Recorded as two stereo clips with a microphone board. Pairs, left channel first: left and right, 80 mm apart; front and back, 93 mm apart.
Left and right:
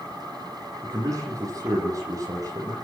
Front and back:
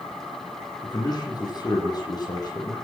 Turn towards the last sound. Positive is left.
turn(degrees=-45)